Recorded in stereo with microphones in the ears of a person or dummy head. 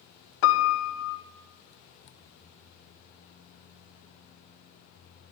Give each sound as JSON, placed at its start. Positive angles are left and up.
{"t": 0.4, "sound": "a piano", "side_deg": 70, "distance_m": 0.6}